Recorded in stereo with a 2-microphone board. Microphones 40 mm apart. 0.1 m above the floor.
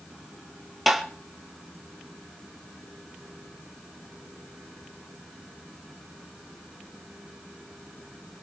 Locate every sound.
0.9 s tapping: centre (ahead or behind), 2 m